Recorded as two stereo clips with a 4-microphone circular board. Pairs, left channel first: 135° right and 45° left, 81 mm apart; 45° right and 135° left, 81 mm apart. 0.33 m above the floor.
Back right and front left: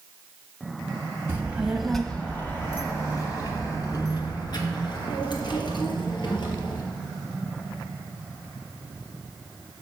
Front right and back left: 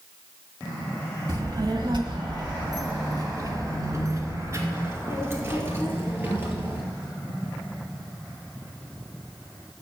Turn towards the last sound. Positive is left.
turn(degrees=-160)